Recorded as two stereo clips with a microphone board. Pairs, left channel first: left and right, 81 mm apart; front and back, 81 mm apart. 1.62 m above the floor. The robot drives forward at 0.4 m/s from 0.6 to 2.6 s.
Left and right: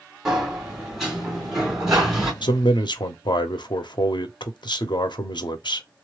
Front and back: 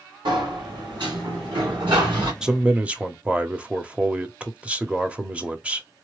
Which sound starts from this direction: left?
A man speaking, at 2.4 s.